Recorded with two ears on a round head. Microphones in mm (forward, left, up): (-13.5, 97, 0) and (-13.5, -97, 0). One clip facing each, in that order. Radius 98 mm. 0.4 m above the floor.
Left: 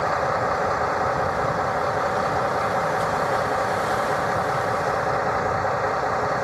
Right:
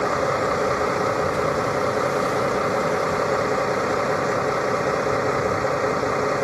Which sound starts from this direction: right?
A vehicle, at 0.0 s.